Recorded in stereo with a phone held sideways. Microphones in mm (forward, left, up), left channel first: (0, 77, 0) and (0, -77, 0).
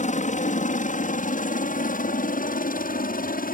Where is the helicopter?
55° left (ahead or behind); by 3.5 s 70° left (ahead or behind).